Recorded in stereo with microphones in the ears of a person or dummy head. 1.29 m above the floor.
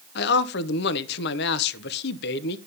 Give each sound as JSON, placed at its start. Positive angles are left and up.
{"t": 0.1, "sound": "a man speaking", "side_deg": 55, "distance_m": 0.7}